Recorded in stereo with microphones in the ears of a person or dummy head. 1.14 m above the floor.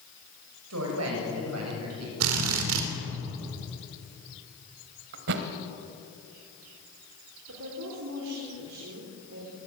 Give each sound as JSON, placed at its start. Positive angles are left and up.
{"t": 0.7, "sound": "a woman speaking", "side_deg": -85, "distance_m": 6.5}
{"t": 2.2, "sound": "a drill", "side_deg": -80, "distance_m": 3.0}
{"t": 5.1, "sound": "a thud", "side_deg": -55, "distance_m": 1.5}
{"t": 7.5, "sound": "a woman speaking", "side_deg": -75, "distance_m": 4.0}